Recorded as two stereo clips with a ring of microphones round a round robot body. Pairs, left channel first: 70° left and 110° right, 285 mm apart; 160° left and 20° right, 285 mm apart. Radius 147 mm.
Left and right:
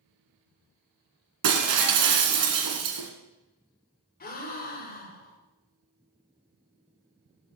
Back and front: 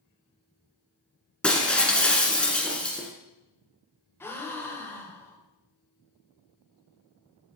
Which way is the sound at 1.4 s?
115° right.